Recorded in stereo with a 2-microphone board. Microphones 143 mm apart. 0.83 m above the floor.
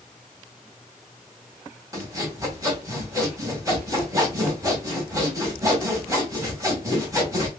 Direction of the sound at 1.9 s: 20° right (ahead or behind).